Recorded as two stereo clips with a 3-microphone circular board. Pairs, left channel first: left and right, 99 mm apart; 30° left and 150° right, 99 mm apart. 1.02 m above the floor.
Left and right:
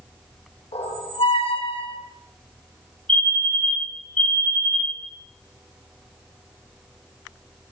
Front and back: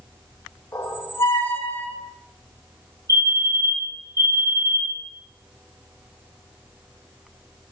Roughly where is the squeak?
Left.